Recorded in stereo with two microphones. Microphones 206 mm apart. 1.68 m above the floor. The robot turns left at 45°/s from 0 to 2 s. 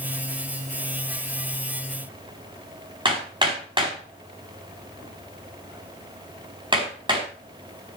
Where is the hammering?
25° right (ahead or behind), 4.5 m.